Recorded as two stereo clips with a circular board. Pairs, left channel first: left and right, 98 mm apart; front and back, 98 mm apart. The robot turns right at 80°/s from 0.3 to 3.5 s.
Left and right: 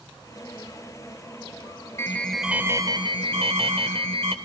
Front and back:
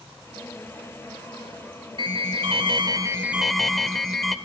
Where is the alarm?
150° left, 2.5 m; by 4.3 s 90° right, 2.5 m.